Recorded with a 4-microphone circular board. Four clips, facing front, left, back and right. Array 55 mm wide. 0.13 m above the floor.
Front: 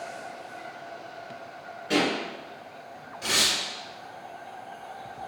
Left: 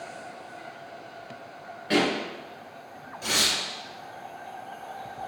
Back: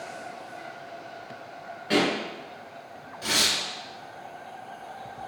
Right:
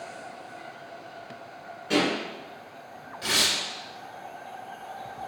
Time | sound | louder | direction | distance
1.9 | a pop | left 1 dB, back 1 dB | 130° left | 1.8 m
3.2 | tearing paper | even, even | 95° right | 1.6 m